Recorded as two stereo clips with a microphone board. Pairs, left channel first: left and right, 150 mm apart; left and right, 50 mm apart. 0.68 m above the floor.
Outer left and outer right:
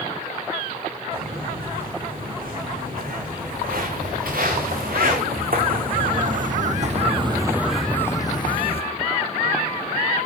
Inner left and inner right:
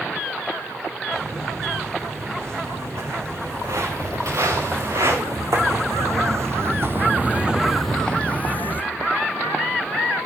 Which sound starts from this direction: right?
Footsteps, at 1.1 s.